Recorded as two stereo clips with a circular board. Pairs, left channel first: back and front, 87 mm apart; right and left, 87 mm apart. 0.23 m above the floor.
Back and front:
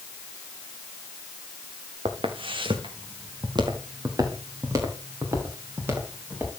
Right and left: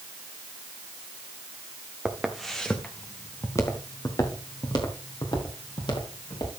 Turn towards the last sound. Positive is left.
turn(degrees=-65)